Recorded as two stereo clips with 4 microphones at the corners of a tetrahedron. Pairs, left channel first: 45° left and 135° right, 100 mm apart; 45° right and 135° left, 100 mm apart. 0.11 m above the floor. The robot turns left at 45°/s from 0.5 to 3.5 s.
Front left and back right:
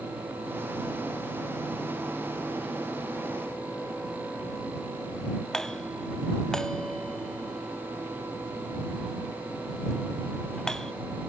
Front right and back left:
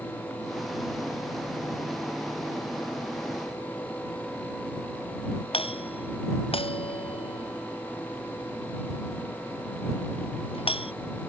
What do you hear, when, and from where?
5.5 s a doorbell: 40° right